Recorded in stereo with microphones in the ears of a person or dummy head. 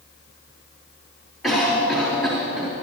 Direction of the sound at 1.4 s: 10° left (ahead or behind).